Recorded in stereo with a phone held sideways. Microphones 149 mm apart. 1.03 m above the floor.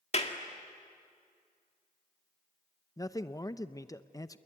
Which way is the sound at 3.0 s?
25° left (ahead or behind).